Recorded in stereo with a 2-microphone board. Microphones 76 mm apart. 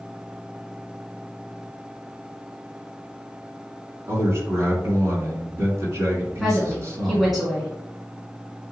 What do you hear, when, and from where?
4.1 s a man speaking: 35° right (ahead or behind), 2 m
6.4 s a woman speaking: 5° right (ahead or behind), 1.6 m